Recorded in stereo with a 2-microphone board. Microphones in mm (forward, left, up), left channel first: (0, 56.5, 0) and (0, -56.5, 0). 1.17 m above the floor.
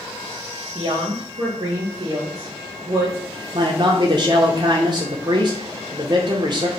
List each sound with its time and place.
0.8 s a woman speaking: 70° right (ahead or behind), 1.1 m
3.5 s a man speaking: 45° right (ahead or behind), 0.5 m